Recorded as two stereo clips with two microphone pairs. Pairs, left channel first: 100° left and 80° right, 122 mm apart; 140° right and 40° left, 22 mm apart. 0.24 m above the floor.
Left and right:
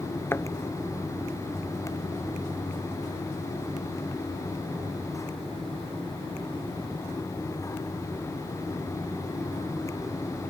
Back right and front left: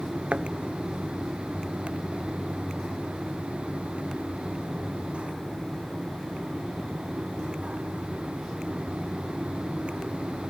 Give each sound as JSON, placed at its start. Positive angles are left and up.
{"t": 0.3, "sound": "a thud", "azimuth_deg": 30}